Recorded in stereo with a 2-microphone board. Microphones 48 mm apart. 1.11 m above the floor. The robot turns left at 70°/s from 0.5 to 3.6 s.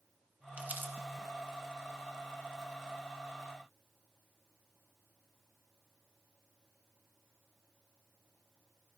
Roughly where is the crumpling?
Right.